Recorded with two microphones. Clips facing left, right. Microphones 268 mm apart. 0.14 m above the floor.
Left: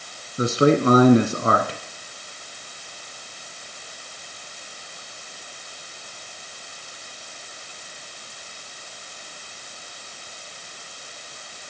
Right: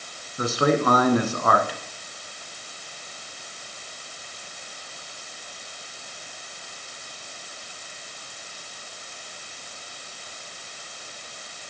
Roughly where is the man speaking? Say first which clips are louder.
Left 4 dB; left.